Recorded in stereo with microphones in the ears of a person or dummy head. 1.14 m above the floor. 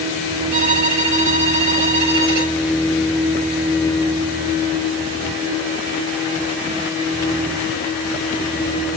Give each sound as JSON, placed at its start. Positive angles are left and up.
{"t": 0.5, "sound": "a violin", "side_deg": -80, "distance_m": 4.5}